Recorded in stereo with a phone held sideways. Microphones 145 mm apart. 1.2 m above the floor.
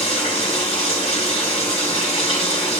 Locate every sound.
0.0 s running water: 45° left (ahead or behind), 1.7 m